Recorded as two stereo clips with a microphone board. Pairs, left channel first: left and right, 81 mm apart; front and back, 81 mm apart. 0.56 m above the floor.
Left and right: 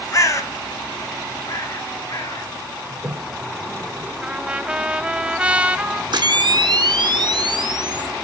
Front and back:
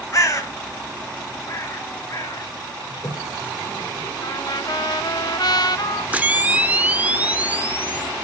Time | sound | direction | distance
0.1 | a bird | 45° left | 1.4 m
2.9 | a toilet flushing | 35° right | 0.6 m
4.2 | a trumpet | 15° right | 0.6 m
6.1 | a camera shutter | 110° right | 0.6 m